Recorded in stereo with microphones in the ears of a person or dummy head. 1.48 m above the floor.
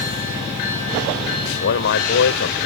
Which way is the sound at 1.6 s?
55° left (ahead or behind).